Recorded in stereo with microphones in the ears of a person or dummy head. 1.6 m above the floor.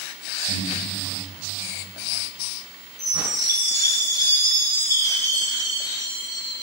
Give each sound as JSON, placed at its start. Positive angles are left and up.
{"t": 0.5, "sound": "breathing", "side_deg": -75, "distance_m": 9.0}
{"t": 3.0, "sound": "a chime", "side_deg": 15, "distance_m": 7.5}